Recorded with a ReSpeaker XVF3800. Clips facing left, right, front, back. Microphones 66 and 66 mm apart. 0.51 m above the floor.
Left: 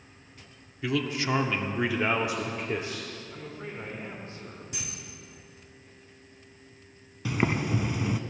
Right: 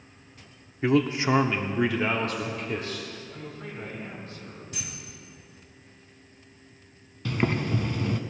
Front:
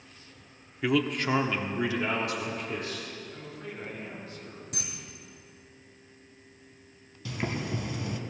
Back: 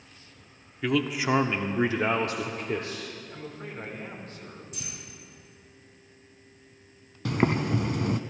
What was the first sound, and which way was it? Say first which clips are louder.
A man speaking: right 6 dB, even; 80° right.